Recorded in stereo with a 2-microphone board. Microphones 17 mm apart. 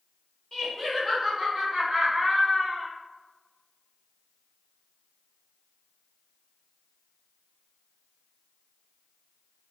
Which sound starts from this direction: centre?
Laughter, at 0.5 s.